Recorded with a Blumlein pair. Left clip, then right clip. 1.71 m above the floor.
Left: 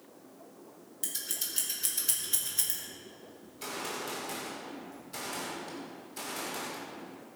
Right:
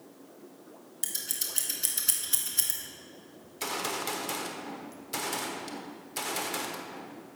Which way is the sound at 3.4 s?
50° right.